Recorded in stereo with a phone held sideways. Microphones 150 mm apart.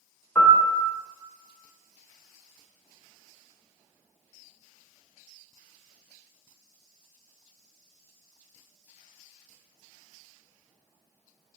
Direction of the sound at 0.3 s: 15° left (ahead or behind).